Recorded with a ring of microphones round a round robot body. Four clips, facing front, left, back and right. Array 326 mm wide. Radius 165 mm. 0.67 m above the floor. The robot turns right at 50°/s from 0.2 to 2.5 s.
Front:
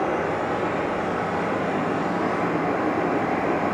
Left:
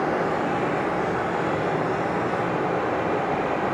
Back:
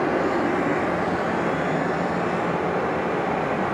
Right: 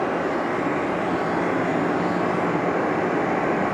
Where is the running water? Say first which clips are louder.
Even, back 2 dB; 175° left, 4.5 m; by 3.8 s 70° right, 4.5 m.